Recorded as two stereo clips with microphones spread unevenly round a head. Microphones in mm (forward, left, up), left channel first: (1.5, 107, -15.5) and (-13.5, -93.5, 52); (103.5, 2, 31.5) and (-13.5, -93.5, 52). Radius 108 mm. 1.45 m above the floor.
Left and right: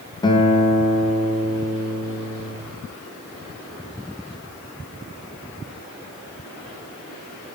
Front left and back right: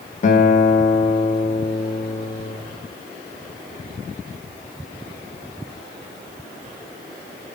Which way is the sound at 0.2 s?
5° left.